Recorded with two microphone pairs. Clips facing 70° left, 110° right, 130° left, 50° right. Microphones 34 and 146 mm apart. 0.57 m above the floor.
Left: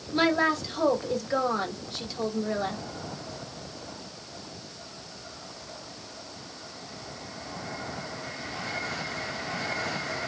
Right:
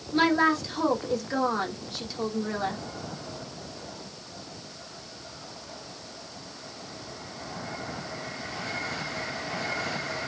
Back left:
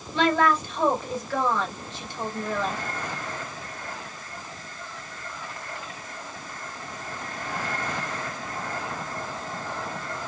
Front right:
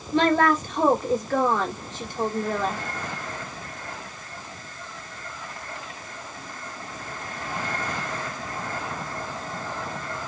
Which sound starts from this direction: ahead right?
A woman speaking, at 0.1 s.